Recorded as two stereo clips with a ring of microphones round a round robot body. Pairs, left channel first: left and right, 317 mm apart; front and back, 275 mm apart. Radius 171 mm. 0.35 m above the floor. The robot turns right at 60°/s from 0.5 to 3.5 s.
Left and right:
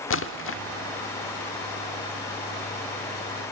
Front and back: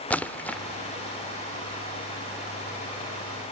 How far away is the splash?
About 0.8 m.